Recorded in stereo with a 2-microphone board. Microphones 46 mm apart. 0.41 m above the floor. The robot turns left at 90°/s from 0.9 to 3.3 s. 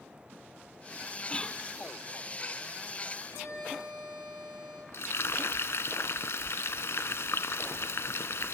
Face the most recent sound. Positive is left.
turn(degrees=70)  # may be behind; listen again after turning